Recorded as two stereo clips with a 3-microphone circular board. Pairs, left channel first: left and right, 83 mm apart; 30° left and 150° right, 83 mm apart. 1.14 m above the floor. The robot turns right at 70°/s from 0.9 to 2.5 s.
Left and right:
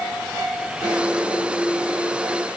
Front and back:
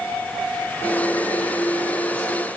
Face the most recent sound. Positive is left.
No sound to turn to.